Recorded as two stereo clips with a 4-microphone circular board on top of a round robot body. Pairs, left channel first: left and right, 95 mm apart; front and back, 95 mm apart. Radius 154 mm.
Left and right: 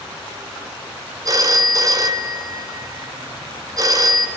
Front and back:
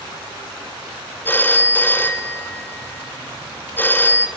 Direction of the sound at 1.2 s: 60° right.